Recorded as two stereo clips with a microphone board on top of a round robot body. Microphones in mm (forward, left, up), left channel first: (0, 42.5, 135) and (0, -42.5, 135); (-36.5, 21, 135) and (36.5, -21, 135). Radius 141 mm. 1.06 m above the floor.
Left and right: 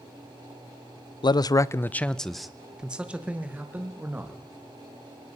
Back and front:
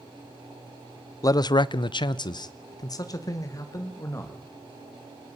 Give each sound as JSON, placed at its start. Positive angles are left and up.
{"t": 1.2, "sound": "a man speaking", "azimuth_deg": 110, "distance_m": 0.6}